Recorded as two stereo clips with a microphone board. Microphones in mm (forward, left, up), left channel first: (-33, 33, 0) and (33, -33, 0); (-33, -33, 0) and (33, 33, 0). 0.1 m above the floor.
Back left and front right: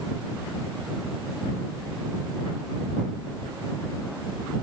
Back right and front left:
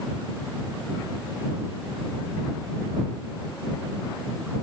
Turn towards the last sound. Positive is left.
No sound to turn to.